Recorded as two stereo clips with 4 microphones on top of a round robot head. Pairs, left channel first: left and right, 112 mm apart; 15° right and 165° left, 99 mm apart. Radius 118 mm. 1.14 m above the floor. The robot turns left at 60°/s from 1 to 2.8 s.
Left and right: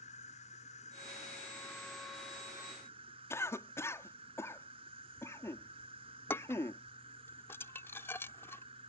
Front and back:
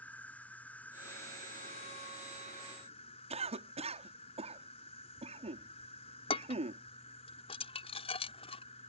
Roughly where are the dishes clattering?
Ahead.